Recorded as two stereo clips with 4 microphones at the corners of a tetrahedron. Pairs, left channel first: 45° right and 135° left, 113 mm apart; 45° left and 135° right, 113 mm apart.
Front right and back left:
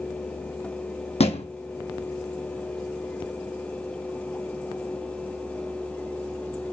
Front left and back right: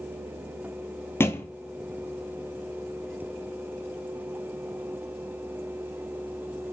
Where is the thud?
25° right, 1.0 m.